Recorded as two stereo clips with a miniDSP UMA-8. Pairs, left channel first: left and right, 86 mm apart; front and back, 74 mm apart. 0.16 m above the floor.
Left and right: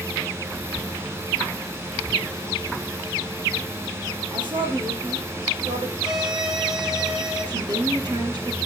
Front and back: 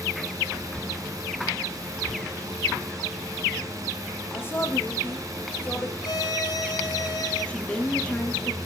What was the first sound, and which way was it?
A woman speaking, 60° right.